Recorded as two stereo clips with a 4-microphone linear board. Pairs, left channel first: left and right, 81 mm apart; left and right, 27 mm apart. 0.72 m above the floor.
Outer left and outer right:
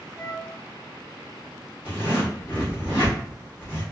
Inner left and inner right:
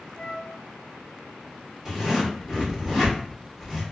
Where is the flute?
10° left (ahead or behind), 1.6 m.